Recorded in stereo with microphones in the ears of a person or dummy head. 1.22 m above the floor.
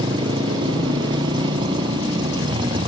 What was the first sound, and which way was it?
A motorcycle, 25° right (ahead or behind).